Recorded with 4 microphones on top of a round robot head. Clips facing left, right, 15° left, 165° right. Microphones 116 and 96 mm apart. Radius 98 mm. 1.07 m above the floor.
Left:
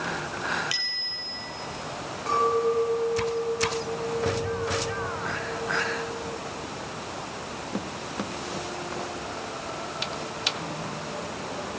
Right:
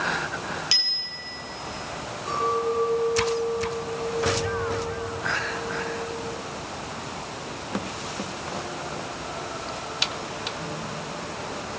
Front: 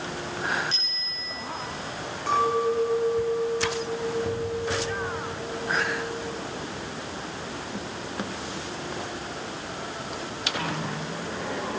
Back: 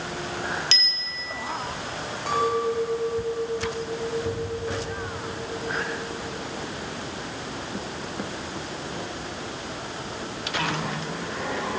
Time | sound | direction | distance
0.7 | a bicycle bell | 155° right | 4 m
2.3 | a clink | 120° left | 5.5 m